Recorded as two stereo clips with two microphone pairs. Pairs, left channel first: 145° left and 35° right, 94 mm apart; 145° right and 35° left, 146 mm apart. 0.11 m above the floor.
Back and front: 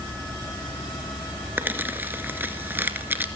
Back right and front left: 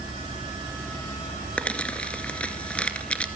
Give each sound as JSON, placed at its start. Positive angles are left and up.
{"t": 1.6, "sound": "crumpling", "azimuth_deg": -75, "distance_m": 1.8}